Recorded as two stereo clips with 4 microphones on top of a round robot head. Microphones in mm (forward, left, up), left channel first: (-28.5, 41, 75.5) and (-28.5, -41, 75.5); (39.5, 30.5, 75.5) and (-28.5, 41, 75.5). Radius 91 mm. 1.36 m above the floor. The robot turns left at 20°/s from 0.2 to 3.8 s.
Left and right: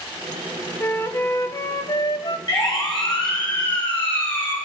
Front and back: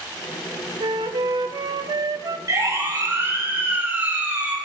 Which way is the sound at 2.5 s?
130° left.